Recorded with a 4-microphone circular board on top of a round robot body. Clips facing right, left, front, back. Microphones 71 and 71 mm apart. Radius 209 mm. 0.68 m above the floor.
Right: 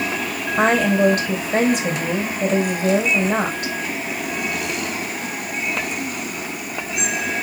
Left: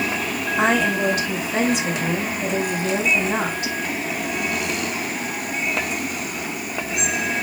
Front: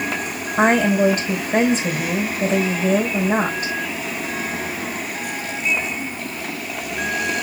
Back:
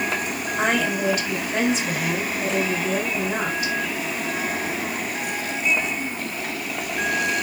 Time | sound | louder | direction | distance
0.6 | a woman speaking | right 3 dB, front 7 dB | 50° right | 4 m